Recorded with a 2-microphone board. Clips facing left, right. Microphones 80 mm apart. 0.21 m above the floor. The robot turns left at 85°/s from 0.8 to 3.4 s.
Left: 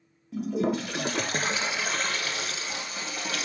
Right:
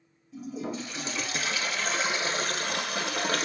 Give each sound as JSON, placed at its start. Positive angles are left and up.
{"t": 0.3, "sound": "a toilet flushing", "azimuth_deg": 95, "distance_m": 0.5}